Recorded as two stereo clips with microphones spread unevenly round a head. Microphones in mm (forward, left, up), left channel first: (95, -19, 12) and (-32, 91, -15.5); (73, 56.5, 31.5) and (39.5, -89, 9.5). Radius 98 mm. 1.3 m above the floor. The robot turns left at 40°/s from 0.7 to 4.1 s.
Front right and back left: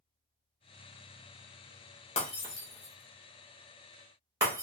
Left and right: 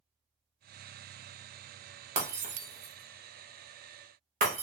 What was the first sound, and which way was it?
Breaking glass, 65° right.